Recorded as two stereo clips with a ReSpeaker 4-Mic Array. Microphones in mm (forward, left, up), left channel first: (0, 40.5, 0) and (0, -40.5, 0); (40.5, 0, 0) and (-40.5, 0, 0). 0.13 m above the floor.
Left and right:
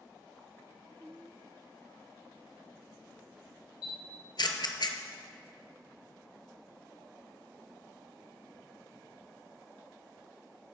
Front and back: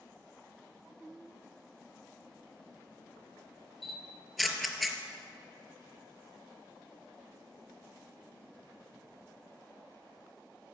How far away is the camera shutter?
About 0.8 m.